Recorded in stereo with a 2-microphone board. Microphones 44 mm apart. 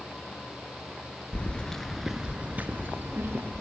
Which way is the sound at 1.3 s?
30° left (ahead or behind).